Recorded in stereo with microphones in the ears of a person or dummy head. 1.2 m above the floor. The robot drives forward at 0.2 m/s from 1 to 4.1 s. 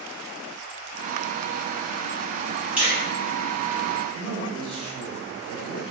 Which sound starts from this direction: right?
A man speaking, at 4.1 s.